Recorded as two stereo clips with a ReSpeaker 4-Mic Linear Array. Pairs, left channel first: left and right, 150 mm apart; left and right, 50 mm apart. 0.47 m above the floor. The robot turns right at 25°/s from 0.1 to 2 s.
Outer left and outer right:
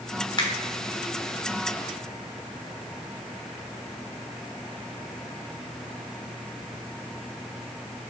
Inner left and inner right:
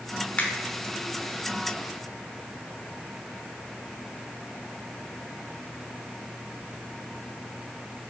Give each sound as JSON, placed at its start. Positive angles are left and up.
{"t": 0.4, "sound": "a finger snap", "side_deg": 35, "distance_m": 0.7}